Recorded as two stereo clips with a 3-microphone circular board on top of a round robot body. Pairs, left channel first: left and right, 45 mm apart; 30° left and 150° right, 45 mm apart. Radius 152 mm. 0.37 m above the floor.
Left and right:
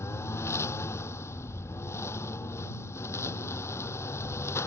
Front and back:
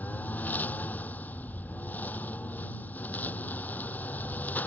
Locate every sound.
0.0 s a lawn mower: 80° left